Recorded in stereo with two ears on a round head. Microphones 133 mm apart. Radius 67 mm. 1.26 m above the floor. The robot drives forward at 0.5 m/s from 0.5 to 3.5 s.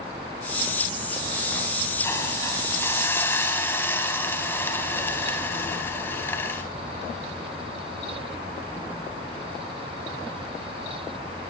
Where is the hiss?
20° left (ahead or behind), 3.5 m; by 6.6 s 15° left (ahead or behind), 4.5 m.